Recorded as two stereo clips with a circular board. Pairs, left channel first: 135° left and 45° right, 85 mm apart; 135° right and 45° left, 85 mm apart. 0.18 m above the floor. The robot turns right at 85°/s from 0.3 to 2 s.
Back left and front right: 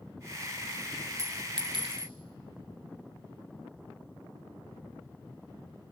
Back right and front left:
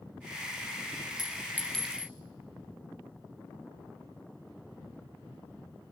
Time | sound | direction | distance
1.2 | a clink | 95° right | 4 m